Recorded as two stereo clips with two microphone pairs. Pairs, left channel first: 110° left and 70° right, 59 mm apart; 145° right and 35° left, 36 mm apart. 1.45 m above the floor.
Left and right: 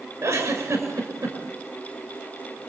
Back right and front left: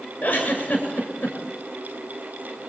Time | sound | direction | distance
0.2 | a giggle | 100° right | 6 m